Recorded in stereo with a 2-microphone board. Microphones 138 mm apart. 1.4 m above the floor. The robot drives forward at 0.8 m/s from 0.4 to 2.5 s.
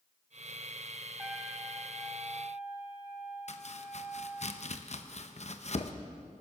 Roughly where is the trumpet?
Centre.